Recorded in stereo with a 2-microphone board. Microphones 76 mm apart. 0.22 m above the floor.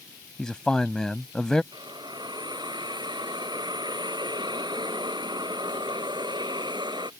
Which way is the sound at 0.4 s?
10° left (ahead or behind).